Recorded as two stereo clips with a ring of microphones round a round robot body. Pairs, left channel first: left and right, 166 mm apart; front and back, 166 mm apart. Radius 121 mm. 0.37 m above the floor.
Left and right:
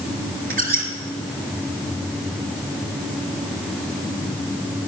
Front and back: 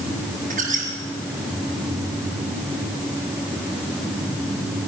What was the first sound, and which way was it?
A squeak, 120° right.